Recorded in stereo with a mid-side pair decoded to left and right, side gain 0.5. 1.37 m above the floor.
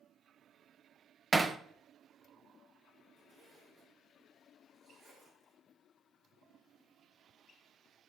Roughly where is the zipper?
Ahead right.